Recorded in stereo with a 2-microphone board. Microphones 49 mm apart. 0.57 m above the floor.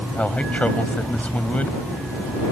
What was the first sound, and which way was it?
A man speaking, 30° left (ahead or behind).